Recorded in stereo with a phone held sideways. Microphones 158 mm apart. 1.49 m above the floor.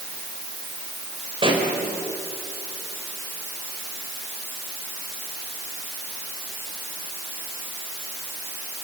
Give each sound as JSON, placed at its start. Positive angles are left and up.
{"t": 1.4, "sound": "a pop", "side_deg": -35, "distance_m": 4.5}